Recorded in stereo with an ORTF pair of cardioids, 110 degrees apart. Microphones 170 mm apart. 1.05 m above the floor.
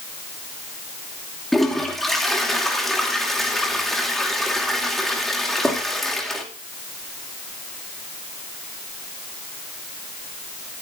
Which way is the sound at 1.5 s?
Straight ahead.